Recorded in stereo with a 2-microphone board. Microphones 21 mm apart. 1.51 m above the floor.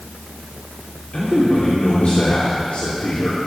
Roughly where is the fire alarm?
No fire alarm in this recording.